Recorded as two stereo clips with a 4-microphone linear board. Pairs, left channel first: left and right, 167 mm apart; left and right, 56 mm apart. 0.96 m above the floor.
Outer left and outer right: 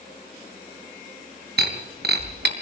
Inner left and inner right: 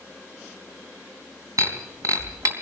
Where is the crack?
No crack in this recording.